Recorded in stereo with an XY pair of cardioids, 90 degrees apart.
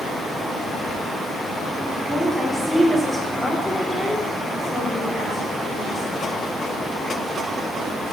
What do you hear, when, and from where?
2.1 s a woman speaking: 10° right, 2.5 m; by 6.2 s 50° left, 3.5 m